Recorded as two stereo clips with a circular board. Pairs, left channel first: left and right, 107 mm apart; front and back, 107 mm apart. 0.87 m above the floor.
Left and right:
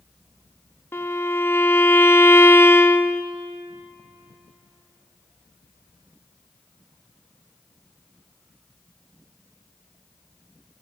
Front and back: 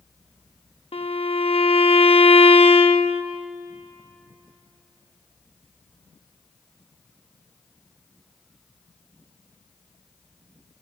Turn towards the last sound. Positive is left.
turn(degrees=20)